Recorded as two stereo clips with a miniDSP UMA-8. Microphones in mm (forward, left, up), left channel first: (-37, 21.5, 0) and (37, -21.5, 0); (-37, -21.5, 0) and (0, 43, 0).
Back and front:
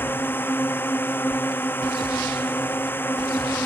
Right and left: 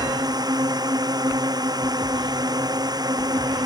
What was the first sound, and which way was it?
A drone, 85° left.